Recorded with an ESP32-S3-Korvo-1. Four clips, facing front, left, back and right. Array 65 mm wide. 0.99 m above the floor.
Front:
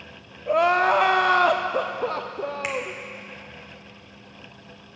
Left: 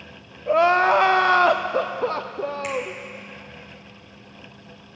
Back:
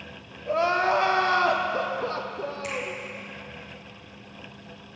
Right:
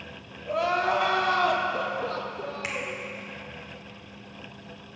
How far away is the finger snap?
About 2 m.